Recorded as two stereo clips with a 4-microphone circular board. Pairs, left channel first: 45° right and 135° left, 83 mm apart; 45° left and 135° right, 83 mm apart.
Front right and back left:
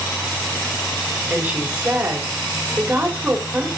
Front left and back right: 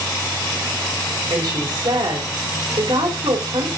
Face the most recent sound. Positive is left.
turn(degrees=-155)